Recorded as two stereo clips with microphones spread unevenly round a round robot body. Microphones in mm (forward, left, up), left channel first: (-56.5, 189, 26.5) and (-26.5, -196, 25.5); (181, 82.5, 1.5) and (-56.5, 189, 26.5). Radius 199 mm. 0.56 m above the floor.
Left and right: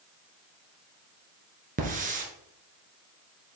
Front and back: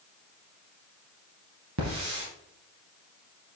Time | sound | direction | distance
1.8 | a hiss | 155° right | 1.8 m